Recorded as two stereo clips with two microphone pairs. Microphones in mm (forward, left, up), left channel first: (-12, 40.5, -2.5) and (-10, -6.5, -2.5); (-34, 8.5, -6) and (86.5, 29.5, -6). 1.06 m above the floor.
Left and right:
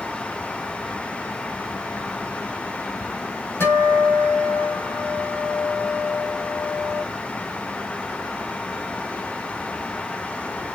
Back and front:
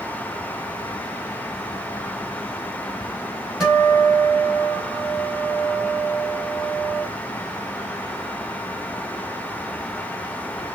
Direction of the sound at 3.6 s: 95° left.